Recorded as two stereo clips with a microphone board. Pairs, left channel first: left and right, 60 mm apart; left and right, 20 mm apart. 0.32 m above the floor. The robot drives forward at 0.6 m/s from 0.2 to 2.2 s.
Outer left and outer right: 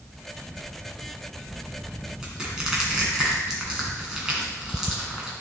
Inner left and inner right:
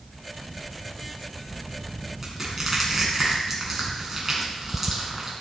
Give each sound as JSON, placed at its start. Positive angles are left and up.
{"t": 2.2, "sound": "crushing", "side_deg": -10, "distance_m": 2.0}